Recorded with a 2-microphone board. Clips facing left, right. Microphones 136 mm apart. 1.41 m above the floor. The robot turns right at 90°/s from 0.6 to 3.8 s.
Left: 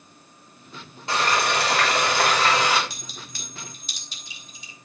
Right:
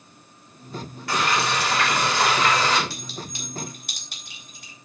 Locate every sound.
1.1 s frying: 25° left, 5.5 m; by 2.8 s straight behind, 5.5 m
2.9 s a clink: 20° left (ahead or behind), 5 m; by 4.8 s 60° right (ahead or behind), 5 m